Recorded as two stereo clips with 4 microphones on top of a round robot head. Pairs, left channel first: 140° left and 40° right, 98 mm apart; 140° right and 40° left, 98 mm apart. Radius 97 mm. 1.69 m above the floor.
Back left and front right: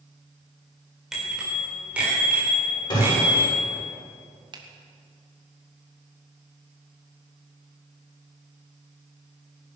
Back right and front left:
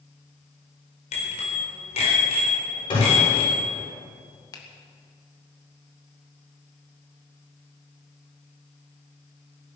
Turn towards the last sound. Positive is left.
turn(degrees=-85)